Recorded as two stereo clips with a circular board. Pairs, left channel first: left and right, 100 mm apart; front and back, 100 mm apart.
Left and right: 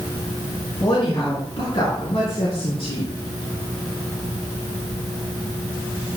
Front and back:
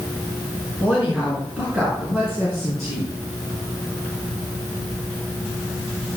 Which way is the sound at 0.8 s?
100° left.